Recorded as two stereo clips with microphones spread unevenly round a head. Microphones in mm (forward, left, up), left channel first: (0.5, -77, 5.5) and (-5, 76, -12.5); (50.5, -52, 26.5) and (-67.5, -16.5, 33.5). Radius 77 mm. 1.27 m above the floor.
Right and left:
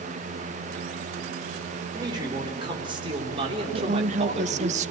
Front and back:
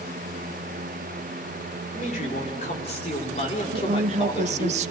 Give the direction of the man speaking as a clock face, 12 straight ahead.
11 o'clock.